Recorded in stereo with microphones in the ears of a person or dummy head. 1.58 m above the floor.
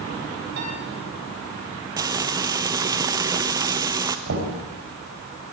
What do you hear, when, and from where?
0.6 s a piano: 65° right (ahead or behind), 8 m
2.0 s frying: 15° right (ahead or behind), 0.6 m
4.3 s knocking: 75° right (ahead or behind), 5 m